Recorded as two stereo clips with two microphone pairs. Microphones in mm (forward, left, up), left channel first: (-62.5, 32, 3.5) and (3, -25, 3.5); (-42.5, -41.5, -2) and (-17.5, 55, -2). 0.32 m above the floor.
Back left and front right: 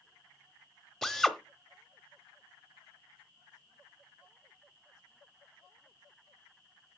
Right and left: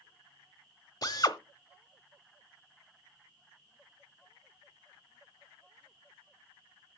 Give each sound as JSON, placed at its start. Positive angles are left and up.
{"t": 1.0, "sound": "a drill", "azimuth_deg": -140, "distance_m": 0.9}